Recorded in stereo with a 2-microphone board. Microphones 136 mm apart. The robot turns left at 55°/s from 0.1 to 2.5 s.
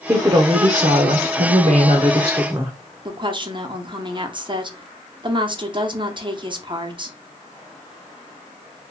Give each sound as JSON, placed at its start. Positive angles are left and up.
{"t": 0.1, "sound": "a woman speaking", "azimuth_deg": -30, "distance_m": 0.5}
{"t": 3.0, "sound": "a woman speaking", "side_deg": -35, "distance_m": 0.7}